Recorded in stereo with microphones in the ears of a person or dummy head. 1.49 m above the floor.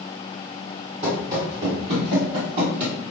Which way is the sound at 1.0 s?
15° right (ahead or behind).